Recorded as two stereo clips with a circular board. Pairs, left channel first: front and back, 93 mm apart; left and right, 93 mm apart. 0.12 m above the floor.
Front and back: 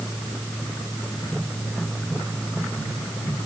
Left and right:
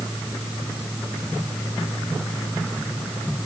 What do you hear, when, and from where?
Only background noise.